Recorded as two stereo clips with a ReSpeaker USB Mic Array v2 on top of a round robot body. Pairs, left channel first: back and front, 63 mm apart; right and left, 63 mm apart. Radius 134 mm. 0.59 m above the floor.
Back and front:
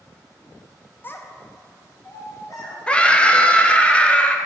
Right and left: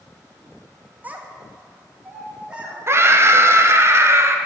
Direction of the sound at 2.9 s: 115° left.